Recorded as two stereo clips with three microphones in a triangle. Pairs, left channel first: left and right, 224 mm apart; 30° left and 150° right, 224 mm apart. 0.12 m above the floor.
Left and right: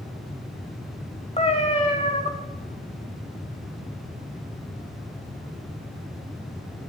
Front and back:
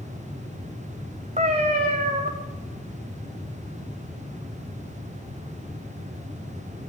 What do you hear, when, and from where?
1.4 s a cat meowing: 155° left, 2 m